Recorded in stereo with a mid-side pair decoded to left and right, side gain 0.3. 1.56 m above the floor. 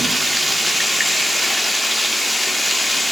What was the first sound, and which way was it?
Running water, 10° right.